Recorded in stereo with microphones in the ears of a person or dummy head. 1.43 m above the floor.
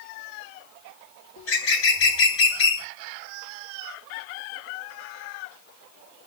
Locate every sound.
1.4 s a bird: 70° left (ahead or behind), 1.9 m